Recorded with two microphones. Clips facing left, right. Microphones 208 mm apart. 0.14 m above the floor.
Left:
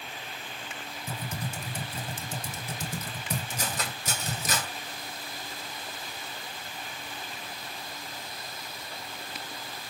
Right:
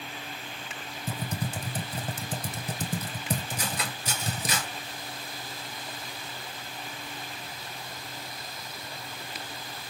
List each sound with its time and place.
1.1 s typing on a keyboard: 40° right (ahead or behind), 0.7 m
3.6 s cutlery clinking: 50° left (ahead or behind), 1.4 m